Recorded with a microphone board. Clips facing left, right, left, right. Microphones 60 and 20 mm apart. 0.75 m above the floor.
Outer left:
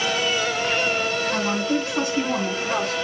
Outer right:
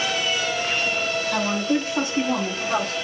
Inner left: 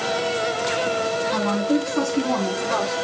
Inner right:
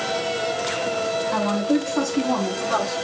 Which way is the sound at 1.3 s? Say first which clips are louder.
Outer right 2 dB, inner right 1 dB; 15° right (ahead or behind).